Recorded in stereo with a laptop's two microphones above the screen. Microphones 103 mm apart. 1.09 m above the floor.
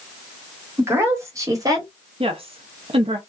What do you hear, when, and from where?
0.8 s a woman speaking: 20° right (ahead or behind), 1.7 m; by 1.9 s 40° right (ahead or behind), 1.5 m
2.2 s a woman speaking: 60° right (ahead or behind), 0.7 m